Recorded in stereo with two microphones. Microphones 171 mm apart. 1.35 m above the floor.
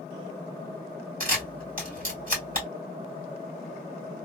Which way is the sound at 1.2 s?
55° right (ahead or behind).